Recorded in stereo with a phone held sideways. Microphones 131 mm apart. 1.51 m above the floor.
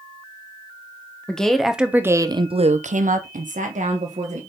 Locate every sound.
1.3 s a woman speaking: 5° left (ahead or behind), 1.4 m; by 4.4 s 65° right (ahead or behind), 1.7 m